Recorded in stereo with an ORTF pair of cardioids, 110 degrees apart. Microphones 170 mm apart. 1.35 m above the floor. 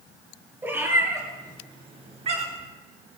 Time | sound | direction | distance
0.6 | a cat meowing | 15° right | 4 m